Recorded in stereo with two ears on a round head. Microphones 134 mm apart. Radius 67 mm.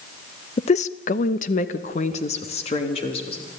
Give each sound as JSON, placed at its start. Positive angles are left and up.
{"t": 0.6, "sound": "a woman speaking", "side_deg": 40, "distance_m": 0.7}